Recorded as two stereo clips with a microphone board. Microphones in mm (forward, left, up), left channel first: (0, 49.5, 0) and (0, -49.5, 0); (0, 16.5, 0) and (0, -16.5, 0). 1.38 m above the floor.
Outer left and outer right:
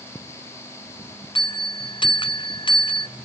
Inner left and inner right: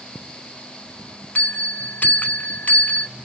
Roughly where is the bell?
Left.